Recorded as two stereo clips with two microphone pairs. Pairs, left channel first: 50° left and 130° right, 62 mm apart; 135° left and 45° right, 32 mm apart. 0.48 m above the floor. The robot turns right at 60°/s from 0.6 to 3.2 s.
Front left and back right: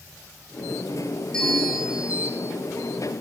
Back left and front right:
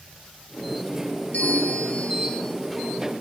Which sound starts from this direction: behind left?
A bell, at 1.3 s.